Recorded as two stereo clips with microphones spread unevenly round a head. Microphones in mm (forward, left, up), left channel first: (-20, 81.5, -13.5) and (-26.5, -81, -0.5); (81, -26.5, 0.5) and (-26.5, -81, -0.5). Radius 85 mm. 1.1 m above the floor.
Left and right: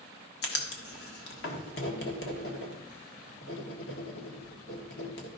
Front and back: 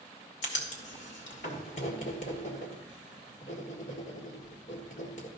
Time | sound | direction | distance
0.4 | writing | 60° left | 1.6 m